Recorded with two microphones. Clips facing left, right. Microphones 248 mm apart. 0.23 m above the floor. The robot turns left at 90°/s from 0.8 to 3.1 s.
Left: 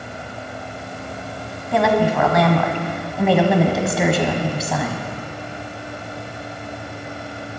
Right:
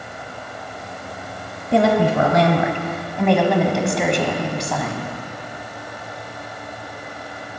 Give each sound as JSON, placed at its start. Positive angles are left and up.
{"t": 1.7, "sound": "a woman speaking", "azimuth_deg": -60, "distance_m": 1.1}